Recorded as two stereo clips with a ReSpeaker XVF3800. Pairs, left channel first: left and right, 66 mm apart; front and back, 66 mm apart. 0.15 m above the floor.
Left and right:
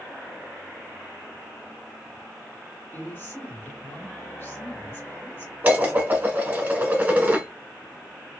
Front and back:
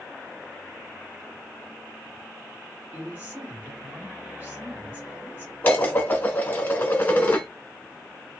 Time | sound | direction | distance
2.9 | a woman speaking | 130° left | 2.5 m
5.6 | dishes clattering | 45° right | 0.9 m